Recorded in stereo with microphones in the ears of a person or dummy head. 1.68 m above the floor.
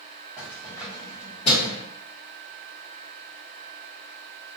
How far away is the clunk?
I don't hear a clunk.